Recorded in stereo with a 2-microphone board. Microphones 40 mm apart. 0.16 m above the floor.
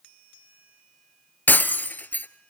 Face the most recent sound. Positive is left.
turn(degrees=50)  # may be behind; listen again after turning